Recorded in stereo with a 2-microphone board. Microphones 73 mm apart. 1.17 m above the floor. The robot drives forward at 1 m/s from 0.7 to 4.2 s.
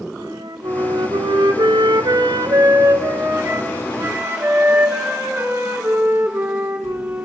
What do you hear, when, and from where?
0.2 s a flute: 60° right (ahead or behind), 1.8 m; by 7.2 s 30° right (ahead or behind), 3 m